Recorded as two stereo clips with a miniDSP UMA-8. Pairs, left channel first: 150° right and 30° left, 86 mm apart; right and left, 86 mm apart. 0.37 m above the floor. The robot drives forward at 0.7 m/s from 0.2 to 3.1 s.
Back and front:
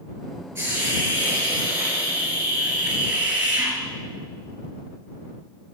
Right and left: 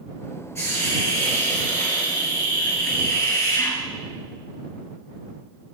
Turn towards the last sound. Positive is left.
turn(degrees=-45)